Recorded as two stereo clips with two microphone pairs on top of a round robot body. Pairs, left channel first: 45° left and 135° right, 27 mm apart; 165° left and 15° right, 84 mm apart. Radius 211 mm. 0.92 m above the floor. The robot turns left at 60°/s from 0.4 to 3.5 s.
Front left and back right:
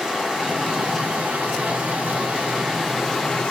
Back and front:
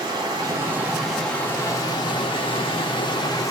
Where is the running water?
65° right, 1.7 m; by 3.5 s 110° left, 1.7 m.